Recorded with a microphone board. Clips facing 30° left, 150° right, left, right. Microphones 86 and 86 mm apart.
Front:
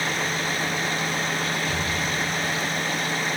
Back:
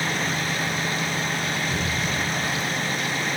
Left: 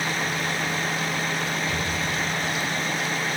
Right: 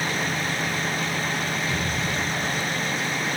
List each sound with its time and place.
1.7 s an explosion: 50° left, 6.5 m